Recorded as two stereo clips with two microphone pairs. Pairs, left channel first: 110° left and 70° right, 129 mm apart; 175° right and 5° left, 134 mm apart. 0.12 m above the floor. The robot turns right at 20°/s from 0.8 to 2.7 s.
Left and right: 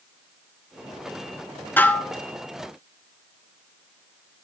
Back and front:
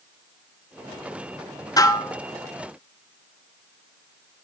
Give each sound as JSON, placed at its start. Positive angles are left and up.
{"t": 1.8, "sound": "dishes clattering", "azimuth_deg": 170, "distance_m": 0.9}